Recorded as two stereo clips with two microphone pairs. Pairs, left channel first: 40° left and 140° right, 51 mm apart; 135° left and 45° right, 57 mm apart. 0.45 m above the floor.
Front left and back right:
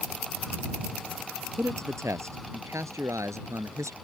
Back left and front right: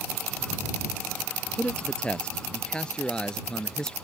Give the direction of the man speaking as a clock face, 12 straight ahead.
5 o'clock.